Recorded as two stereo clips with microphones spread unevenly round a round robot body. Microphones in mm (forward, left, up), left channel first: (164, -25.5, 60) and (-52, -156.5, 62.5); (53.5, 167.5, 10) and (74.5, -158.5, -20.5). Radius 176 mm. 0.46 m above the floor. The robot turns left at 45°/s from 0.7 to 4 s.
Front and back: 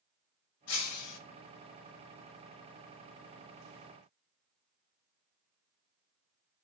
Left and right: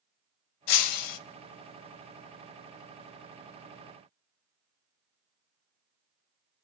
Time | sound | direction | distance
0.7 | breaking glass | 85° left | 0.5 m